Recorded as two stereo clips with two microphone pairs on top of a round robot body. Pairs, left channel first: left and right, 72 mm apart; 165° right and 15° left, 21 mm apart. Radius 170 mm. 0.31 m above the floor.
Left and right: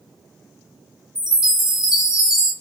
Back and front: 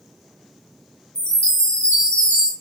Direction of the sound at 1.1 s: 170° right.